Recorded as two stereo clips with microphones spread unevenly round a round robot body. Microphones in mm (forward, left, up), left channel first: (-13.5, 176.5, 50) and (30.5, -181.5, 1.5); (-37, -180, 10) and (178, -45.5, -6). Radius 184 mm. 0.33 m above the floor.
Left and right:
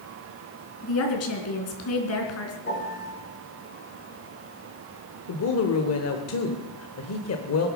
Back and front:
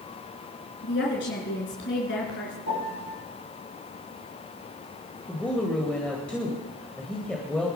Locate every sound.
0.8 s a woman speaking: 150° left, 3.5 m
2.6 s a piano: 165° left, 5.5 m
5.3 s a woman speaking: 125° left, 1.7 m